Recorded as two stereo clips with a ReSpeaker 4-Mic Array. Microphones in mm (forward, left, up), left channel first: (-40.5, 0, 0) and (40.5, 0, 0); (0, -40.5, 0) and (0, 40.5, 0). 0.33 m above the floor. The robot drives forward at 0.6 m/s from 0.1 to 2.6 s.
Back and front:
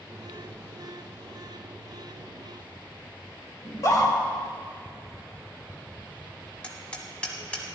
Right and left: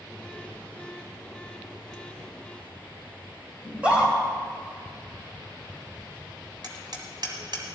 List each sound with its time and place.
3.6 s a scream: 160° left, 1.7 m
6.6 s hammering: 105° left, 1.7 m